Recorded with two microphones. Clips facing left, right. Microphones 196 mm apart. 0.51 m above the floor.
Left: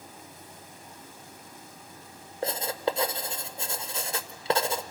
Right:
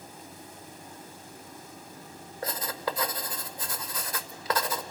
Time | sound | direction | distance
2.4 | writing | 25° left (ahead or behind) | 0.7 m